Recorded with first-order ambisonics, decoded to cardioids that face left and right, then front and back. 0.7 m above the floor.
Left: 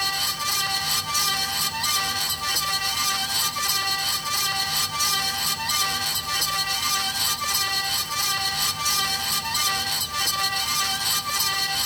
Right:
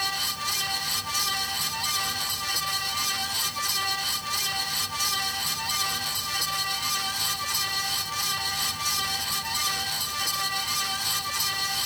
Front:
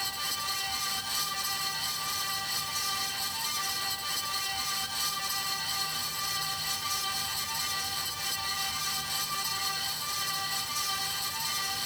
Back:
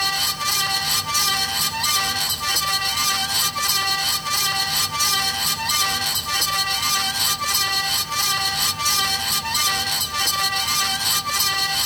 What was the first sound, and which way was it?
Only background noise.